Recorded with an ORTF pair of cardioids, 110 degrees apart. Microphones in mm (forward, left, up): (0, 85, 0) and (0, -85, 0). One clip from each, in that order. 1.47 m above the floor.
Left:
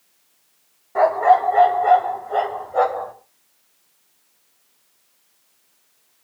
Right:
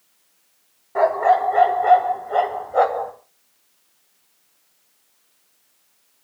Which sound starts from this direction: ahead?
A dog barking, at 0.9 s.